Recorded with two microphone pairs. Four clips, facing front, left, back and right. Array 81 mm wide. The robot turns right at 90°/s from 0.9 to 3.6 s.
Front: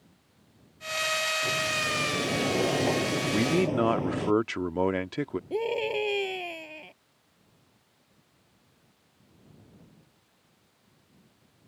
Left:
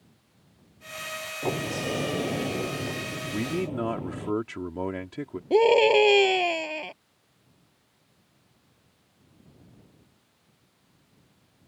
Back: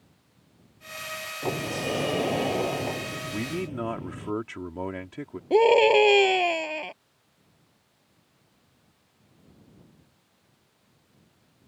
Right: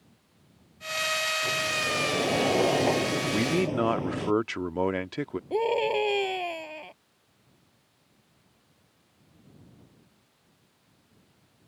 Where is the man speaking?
60° right; by 5.4 s 35° right.